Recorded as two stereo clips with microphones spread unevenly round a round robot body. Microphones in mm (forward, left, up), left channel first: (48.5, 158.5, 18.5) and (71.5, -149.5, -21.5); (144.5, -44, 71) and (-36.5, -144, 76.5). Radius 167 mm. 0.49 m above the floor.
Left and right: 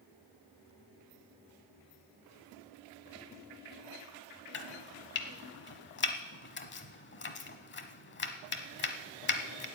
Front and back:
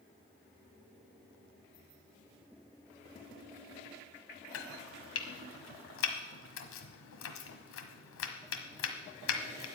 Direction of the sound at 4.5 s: 40° left.